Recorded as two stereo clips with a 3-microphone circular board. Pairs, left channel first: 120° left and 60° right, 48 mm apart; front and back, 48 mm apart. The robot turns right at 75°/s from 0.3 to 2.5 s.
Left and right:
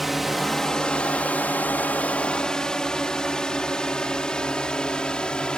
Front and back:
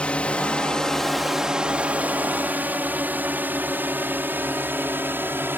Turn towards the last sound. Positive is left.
turn(degrees=-175)